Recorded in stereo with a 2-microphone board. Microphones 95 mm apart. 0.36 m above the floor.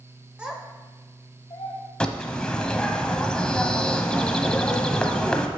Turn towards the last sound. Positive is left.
turn(degrees=10)  # may be behind; listen again after turning